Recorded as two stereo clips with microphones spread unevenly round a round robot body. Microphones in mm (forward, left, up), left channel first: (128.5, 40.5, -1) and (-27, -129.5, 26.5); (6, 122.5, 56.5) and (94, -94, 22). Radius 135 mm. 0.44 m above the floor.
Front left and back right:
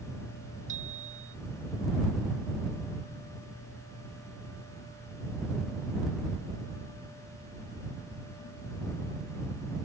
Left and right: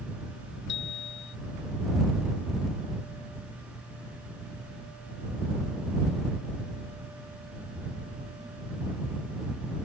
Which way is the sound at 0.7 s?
165° left.